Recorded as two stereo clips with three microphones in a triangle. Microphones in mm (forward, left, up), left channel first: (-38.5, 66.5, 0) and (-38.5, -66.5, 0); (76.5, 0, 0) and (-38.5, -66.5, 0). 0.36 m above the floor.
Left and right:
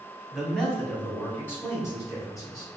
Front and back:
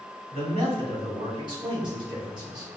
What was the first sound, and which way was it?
A man speaking, straight behind.